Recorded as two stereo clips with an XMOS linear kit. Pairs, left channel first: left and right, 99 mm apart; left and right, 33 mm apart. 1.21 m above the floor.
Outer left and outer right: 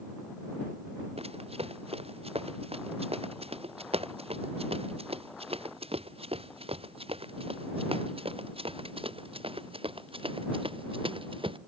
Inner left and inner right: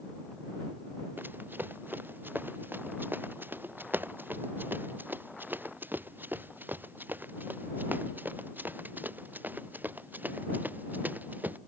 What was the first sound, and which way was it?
Running footsteps, 85° right.